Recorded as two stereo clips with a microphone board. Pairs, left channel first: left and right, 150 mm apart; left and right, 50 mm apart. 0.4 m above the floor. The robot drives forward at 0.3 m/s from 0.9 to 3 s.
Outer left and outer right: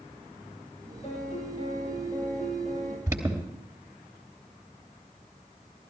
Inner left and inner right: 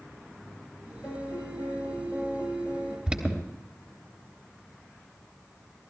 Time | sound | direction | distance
1.0 | a piano | 45° left (ahead or behind) | 9.5 m
3.1 | an alarm | 15° right (ahead or behind) | 3 m